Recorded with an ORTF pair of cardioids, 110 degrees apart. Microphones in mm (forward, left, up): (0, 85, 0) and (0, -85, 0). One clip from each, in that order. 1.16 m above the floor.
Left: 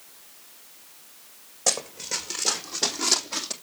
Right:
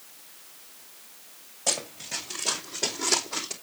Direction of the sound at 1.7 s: 65° left.